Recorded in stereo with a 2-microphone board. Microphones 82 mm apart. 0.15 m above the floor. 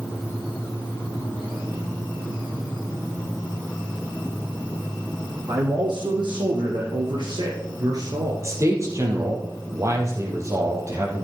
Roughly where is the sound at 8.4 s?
Right.